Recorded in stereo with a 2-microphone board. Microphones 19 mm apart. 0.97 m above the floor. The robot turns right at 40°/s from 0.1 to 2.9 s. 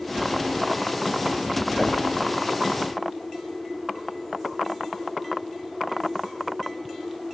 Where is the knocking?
5° left (ahead or behind), 4 m; by 2.0 s 15° left (ahead or behind), 4 m.